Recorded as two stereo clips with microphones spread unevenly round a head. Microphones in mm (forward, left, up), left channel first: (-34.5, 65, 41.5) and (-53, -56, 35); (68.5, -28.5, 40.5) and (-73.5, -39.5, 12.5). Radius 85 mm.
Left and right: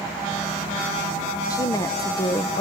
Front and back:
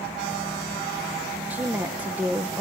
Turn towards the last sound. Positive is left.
turn(degrees=130)